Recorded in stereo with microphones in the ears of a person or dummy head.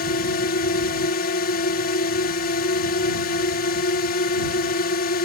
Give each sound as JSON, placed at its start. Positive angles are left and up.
{"t": 0.0, "sound": "a drone", "side_deg": 50}